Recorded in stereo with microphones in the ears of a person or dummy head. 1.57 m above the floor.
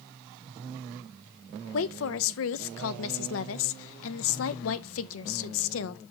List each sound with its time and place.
1.7 s a woman speaking: 70° left (ahead or behind), 0.6 m